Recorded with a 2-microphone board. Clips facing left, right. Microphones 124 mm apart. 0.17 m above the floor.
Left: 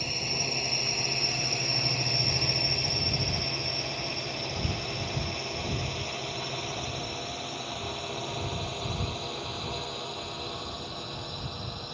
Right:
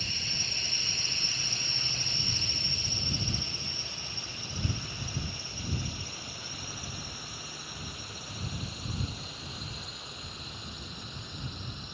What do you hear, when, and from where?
0.0 s a drone: 50° left (ahead or behind); by 12.0 s 65° left (ahead or behind)